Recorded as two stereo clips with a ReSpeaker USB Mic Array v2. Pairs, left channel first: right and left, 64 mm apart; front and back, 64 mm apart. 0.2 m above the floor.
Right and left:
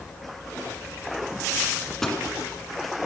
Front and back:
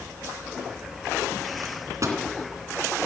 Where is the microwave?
175° right, 1.8 m.